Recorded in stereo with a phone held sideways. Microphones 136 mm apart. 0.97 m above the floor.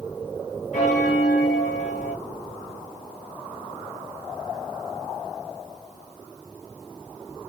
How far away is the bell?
About 1.5 m.